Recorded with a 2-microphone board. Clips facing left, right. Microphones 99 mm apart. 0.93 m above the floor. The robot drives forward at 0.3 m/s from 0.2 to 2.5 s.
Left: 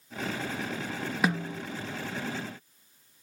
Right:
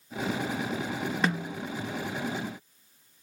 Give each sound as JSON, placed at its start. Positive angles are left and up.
{"t": 1.2, "sound": "a snare drum", "side_deg": 5, "distance_m": 0.6}